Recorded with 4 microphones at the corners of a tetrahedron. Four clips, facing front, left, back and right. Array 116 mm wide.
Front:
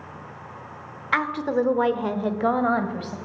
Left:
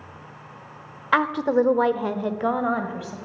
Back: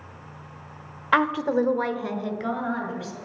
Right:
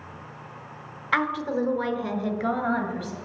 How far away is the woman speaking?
About 1.2 m.